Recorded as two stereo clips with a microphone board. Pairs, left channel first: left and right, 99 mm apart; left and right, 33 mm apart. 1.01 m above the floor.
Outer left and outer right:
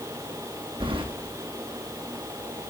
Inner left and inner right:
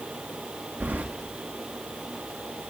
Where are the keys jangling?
65° right (ahead or behind), 0.9 m.